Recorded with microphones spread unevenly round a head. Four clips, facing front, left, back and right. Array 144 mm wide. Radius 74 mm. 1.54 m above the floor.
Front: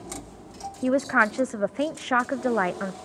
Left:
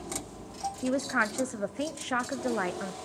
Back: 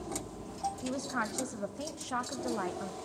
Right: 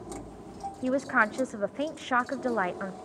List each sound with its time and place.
0.8 s a woman speaking: 5° left, 0.6 m